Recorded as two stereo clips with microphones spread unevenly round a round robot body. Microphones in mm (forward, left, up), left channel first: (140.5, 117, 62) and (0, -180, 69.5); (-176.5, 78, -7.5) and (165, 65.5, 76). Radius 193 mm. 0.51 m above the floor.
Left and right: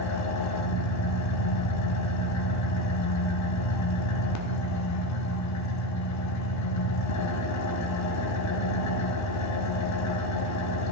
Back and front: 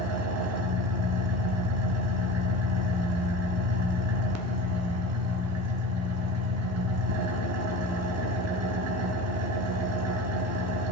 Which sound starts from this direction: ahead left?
An engine running, at 0.0 s.